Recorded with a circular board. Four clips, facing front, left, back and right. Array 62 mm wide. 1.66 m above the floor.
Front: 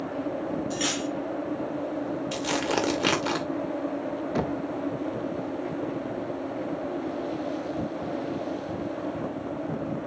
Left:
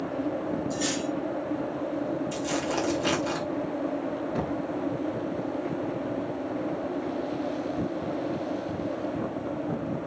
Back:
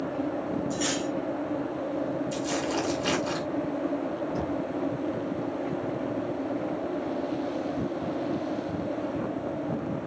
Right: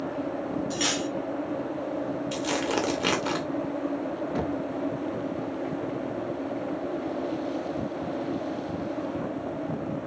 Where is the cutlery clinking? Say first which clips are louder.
Even, even; 60° right, 3 m.